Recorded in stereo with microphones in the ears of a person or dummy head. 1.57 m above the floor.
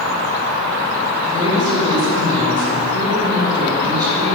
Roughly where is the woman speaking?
Centre.